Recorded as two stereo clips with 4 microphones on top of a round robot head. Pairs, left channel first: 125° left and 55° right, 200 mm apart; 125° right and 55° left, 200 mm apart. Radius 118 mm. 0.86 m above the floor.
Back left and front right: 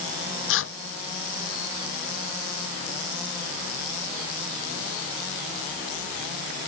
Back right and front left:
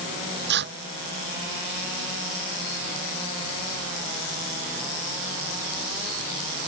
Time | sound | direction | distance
0.5 | tearing paper | 95° left | ?